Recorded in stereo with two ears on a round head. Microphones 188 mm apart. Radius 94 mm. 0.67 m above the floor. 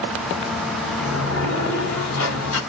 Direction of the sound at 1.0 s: 70° left (ahead or behind).